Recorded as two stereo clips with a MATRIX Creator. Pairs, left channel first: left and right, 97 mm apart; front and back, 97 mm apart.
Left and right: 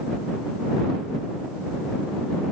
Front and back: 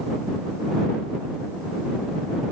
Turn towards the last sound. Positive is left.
No sound to turn to.